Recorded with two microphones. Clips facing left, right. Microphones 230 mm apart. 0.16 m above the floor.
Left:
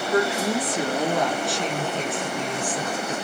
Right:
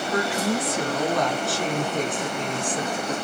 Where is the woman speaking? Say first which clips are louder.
Left 2 dB; 30° left (ahead or behind), 2 m; by 3.1 s 35° right (ahead or behind), 2 m.